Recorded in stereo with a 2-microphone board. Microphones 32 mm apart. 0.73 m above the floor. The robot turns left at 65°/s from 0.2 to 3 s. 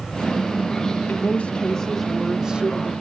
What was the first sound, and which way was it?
A woman speaking, 65° left.